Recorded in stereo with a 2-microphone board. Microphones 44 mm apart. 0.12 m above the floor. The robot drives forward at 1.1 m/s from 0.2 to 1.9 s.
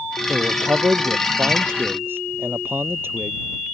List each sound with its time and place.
0.3 s a man speaking: 55° right (ahead or behind); by 3.4 s 60° right (ahead or behind)